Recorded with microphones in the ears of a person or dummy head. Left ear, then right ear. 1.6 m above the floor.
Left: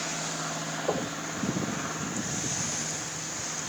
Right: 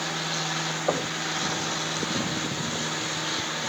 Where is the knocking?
25° right (ahead or behind), 1.6 m.